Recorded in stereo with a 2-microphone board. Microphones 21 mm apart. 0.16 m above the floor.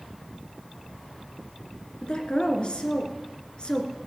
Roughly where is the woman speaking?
Left.